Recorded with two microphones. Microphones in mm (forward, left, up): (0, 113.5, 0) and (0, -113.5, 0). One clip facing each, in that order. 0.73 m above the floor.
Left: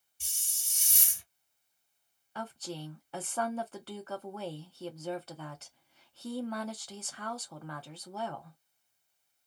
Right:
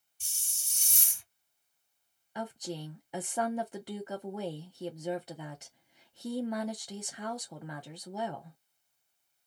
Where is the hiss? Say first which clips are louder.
Left 2 dB; 60° left (ahead or behind), 1.0 m.